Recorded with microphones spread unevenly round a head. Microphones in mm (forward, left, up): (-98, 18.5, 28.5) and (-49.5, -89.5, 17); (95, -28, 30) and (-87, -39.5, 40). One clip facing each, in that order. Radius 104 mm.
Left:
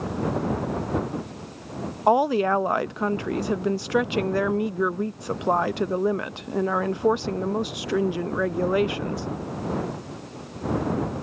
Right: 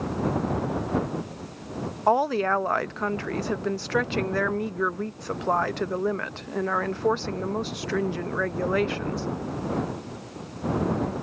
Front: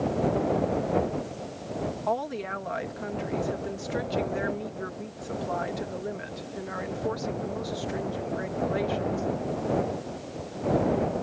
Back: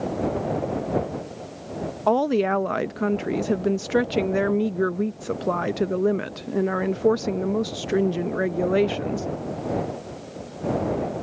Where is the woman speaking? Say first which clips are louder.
Left 3 dB, back 14 dB; 170° right.